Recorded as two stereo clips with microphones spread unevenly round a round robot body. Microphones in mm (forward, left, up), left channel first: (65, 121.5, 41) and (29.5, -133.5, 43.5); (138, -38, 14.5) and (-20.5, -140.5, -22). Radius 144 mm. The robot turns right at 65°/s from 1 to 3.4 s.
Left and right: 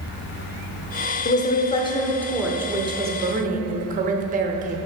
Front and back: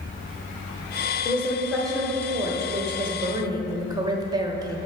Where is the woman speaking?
95° left, 0.9 m; by 4.8 s 125° right, 0.9 m.